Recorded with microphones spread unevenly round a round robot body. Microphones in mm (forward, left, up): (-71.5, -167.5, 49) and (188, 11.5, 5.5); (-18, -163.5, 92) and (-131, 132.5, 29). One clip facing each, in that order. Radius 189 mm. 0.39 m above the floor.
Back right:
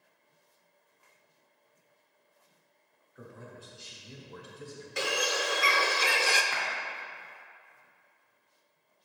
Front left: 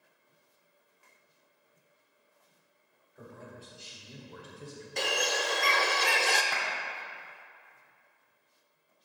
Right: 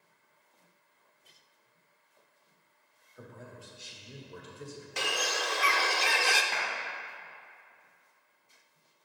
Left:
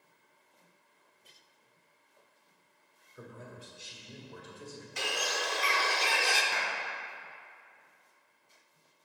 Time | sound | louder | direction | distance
3.1 | a man speaking | even, left 1 dB | 125° left | 1.4 m
5.0 | a bird | even, right 1 dB | 55° right | 0.5 m
6.5 | a clap | front left 1 dB, even | 40° left | 1.8 m